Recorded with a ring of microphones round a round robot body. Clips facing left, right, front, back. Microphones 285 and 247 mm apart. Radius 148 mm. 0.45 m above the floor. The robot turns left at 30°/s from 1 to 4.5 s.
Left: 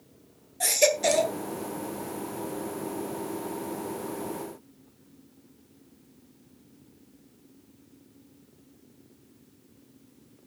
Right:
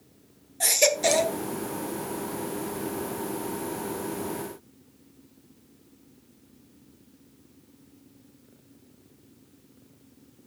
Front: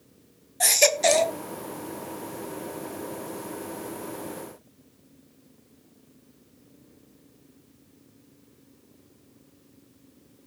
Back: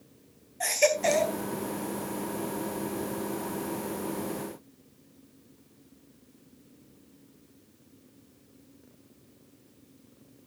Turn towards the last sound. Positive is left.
turn(degrees=-105)